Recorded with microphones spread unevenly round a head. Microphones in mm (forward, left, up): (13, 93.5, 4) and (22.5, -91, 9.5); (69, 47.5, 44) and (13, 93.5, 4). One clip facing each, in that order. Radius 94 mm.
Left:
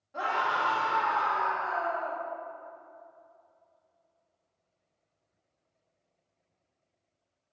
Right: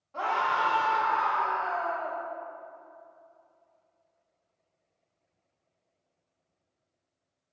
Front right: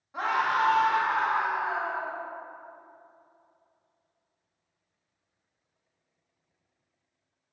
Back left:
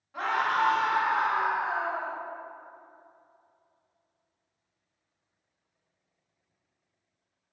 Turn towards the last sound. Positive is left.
turn(degrees=75)